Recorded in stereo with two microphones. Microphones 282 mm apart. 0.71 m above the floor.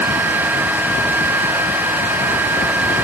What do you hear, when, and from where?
Only background noise.